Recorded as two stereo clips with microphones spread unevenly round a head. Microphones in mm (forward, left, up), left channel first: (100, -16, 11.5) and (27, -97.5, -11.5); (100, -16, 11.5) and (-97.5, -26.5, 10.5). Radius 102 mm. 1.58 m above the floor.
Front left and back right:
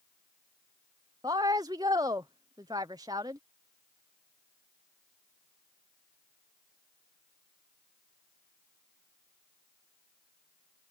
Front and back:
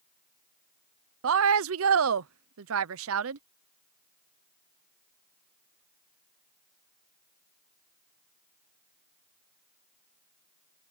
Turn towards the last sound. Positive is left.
turn(degrees=155)